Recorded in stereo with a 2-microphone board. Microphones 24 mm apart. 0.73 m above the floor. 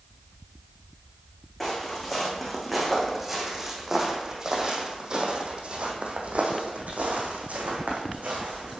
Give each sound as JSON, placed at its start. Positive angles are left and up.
{"t": 1.6, "sound": "footsteps", "side_deg": 5, "distance_m": 2.5}